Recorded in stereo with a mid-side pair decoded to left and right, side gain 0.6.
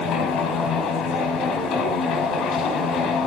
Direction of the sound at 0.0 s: 55° left.